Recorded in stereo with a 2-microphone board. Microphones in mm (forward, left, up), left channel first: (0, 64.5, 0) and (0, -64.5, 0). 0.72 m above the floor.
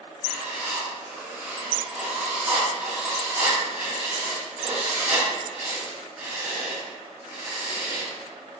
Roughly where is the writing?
Centre.